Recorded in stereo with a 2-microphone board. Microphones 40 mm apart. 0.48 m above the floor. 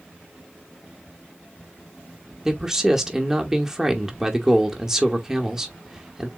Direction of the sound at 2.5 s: 10° right (ahead or behind).